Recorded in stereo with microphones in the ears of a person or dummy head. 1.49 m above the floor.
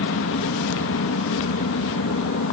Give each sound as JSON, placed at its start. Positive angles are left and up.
{"t": 0.0, "sound": "an aircraft", "side_deg": 60}